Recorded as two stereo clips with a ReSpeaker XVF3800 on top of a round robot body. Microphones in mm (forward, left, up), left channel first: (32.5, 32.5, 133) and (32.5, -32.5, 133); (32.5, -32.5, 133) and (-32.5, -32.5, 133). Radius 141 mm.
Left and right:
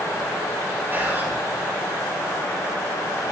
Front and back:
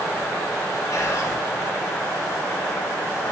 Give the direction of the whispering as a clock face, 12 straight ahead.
1 o'clock.